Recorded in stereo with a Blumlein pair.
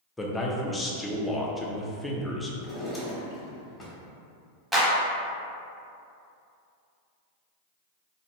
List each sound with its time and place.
0.2 s a man speaking: 5° left, 0.5 m
2.6 s a drawer: 10° left, 1.1 m
4.7 s a clap: 5° right, 0.9 m